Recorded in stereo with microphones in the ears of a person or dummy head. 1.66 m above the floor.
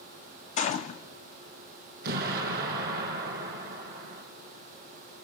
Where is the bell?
No bell in this recording.